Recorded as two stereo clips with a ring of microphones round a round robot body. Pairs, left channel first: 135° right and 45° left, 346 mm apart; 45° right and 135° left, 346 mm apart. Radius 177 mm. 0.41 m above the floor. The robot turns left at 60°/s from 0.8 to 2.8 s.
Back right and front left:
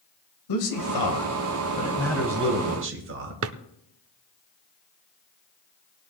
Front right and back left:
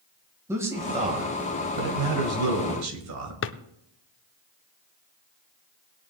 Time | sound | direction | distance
0.5 | a man speaking | 145° right | 2.0 m
3.4 | a drawer | 5° left | 0.6 m